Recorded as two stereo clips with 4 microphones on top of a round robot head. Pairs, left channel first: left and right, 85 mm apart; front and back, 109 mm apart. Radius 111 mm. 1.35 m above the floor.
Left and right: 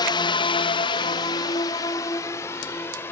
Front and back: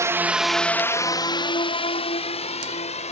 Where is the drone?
120° left; by 3.1 s 20° left.